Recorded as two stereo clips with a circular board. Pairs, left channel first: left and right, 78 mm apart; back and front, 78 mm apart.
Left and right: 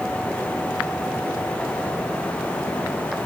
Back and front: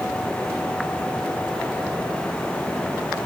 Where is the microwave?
I don't hear a microwave.